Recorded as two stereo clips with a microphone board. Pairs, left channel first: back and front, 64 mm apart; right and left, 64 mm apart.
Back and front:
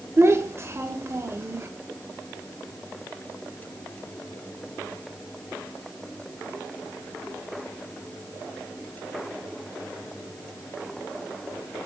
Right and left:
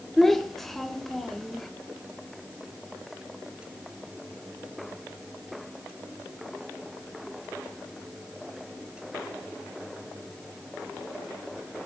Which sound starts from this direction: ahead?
A child speaking, at 0.2 s.